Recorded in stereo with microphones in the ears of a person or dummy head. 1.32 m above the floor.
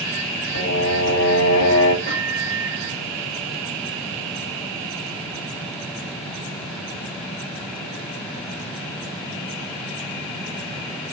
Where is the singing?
50° left (ahead or behind), 2 m.